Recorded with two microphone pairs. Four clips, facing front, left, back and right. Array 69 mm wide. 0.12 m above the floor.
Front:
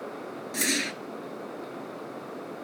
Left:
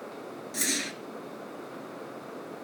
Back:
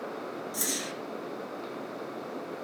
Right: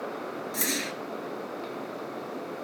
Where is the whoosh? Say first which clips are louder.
Even, front 5 dB; 5° right, 0.8 m.